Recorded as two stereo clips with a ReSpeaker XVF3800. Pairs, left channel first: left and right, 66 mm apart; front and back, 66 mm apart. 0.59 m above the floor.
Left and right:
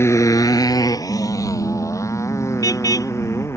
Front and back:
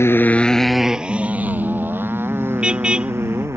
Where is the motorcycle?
45° left; by 3.6 s 135° left.